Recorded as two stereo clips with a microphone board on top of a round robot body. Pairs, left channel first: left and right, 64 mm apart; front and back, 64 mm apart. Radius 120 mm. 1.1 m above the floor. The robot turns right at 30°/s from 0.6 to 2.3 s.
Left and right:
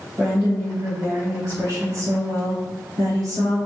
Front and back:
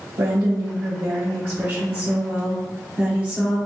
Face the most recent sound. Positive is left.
turn(degrees=-105)